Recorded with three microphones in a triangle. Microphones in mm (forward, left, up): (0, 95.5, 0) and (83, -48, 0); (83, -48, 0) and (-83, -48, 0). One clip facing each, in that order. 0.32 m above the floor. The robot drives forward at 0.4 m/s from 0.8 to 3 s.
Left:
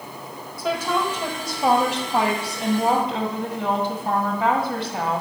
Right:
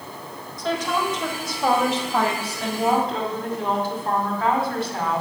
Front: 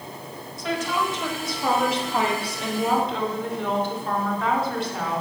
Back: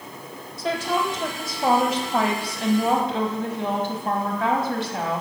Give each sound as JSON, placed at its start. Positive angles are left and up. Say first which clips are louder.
{"t": 0.6, "sound": "a woman speaking", "louder": "left 1 dB, back 2 dB", "azimuth_deg": -165, "distance_m": 1.5}